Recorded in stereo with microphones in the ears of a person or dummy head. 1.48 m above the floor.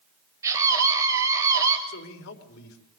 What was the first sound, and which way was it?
A scream, 20° right (ahead or behind).